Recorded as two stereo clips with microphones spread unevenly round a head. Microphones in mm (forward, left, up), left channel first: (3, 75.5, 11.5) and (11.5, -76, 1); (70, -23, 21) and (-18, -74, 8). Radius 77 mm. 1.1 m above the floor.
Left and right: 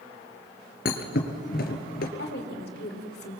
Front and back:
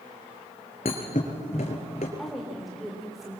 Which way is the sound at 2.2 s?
120° left.